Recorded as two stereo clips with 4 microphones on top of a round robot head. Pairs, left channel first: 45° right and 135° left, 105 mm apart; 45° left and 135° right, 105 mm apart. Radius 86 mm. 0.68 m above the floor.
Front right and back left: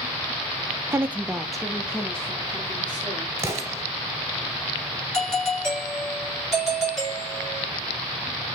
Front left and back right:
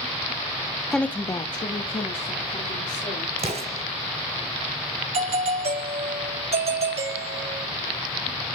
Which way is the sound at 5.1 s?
130° right.